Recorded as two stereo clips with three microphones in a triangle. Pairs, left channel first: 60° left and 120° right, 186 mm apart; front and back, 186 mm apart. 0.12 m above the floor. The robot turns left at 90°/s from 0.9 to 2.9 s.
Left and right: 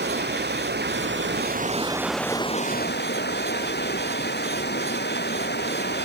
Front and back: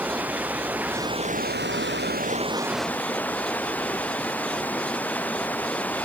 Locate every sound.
0.0 s running water: 100° right; by 6.1 s 80° left